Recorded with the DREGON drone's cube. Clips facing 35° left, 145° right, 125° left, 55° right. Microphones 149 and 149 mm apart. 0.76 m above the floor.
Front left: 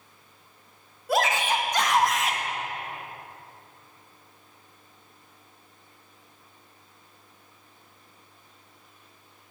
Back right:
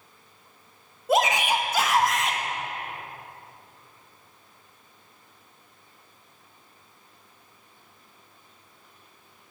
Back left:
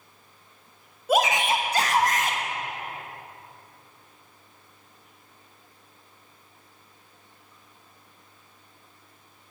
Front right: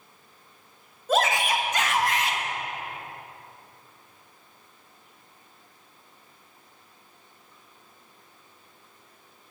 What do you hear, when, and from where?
1.1 s a shout: 170° right, 0.8 m; by 2.4 s 120° left, 1.0 m